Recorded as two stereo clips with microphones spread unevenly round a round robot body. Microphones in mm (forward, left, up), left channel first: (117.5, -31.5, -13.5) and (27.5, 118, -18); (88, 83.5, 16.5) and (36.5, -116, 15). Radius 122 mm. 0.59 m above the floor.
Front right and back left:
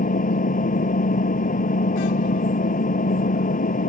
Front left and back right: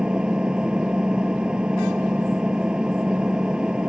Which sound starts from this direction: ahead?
An engine running, at 0.0 s.